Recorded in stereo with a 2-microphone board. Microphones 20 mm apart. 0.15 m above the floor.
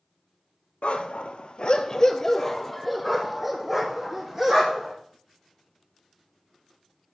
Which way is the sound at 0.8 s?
80° left.